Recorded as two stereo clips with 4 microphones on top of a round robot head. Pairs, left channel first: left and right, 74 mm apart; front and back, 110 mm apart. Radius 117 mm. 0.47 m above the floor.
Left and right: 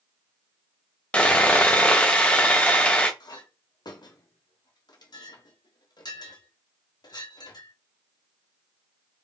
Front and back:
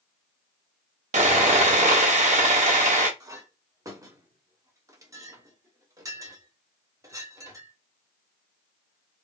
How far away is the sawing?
About 1.5 m.